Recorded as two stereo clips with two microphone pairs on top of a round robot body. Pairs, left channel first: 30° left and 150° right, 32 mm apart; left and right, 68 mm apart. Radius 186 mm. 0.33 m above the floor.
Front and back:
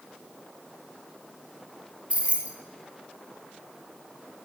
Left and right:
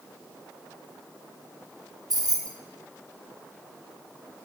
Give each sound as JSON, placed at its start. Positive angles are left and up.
{"t": 2.1, "sound": "keys jangling", "azimuth_deg": -95, "distance_m": 1.5}